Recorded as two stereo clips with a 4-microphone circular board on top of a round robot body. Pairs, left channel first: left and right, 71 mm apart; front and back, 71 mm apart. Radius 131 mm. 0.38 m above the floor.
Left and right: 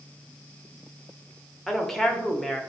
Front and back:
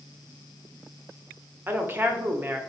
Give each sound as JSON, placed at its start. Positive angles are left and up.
{"t": 1.7, "sound": "a woman speaking", "azimuth_deg": 170, "distance_m": 1.0}